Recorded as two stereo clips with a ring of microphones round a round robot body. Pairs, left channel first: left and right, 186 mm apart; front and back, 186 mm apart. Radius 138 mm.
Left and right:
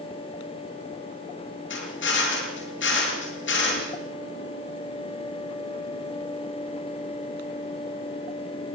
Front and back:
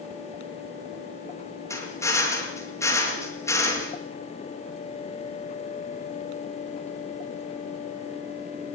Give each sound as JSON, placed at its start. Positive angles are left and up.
{"t": 1.7, "sound": "a drill", "azimuth_deg": 75, "distance_m": 8.5}